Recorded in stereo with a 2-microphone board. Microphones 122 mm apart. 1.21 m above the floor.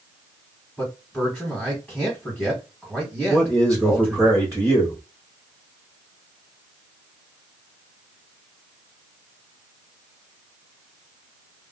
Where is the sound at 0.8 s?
5° left (ahead or behind), 1.2 m.